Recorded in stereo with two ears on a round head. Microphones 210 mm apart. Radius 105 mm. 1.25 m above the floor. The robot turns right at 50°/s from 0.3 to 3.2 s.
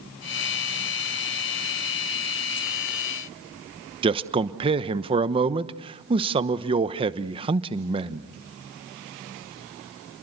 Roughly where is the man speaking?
Right.